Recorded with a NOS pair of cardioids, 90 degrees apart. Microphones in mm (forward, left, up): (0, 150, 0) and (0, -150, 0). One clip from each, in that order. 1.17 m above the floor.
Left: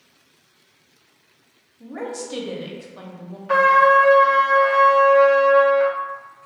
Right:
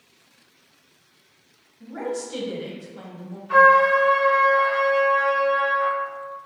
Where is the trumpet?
60° left, 0.6 m.